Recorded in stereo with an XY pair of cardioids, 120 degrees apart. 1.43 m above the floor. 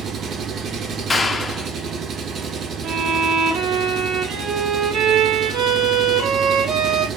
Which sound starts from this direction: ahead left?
A clap, at 1.1 s.